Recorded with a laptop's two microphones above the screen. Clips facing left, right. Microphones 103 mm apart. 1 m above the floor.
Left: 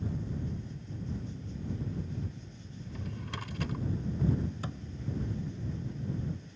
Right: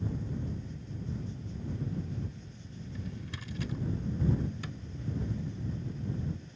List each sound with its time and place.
2.8 s a drawer: 65° left (ahead or behind)
4.6 s a thud: 35° left (ahead or behind)